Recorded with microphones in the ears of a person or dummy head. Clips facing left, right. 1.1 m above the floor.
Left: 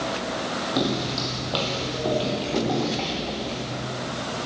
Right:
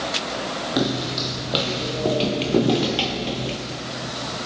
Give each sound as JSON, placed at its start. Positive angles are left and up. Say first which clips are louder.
{"t": 0.8, "sound": "footsteps", "louder": "right 2 dB", "side_deg": -10, "distance_m": 2.0}